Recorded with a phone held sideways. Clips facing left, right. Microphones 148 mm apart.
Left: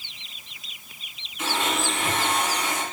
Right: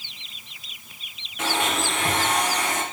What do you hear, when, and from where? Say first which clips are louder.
1.4 s a blender: right 1 dB; 70° right (ahead or behind), 2.5 m